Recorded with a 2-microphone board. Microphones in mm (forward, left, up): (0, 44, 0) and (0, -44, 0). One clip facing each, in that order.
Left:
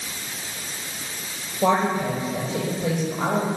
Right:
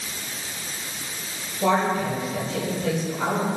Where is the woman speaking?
20° left (ahead or behind), 8 m.